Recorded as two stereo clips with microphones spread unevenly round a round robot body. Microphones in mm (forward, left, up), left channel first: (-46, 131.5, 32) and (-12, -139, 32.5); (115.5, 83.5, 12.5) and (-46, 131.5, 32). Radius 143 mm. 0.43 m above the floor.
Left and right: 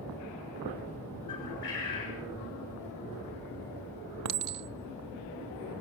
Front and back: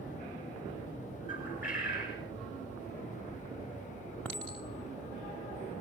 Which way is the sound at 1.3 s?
20° left.